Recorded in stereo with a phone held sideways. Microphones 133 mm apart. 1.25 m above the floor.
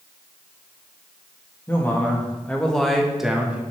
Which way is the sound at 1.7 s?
15° left (ahead or behind).